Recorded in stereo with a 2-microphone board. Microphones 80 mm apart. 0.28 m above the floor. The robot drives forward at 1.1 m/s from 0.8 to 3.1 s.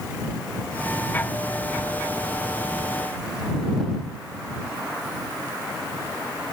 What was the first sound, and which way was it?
Only background noise.